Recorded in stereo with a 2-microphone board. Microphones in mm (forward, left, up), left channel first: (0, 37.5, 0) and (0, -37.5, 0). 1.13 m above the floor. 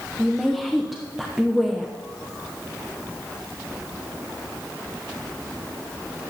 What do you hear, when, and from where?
0.2 s a woman speaking: centre (ahead or behind), 0.6 m